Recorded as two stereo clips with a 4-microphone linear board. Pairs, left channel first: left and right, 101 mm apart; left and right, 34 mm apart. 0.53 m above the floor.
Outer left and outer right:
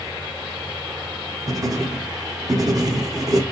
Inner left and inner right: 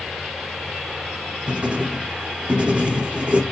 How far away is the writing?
About 0.7 m.